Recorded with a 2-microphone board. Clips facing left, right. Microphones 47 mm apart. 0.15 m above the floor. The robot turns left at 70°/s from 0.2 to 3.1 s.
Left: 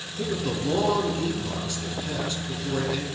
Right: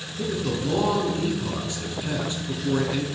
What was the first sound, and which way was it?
A man speaking, 15° left (ahead or behind).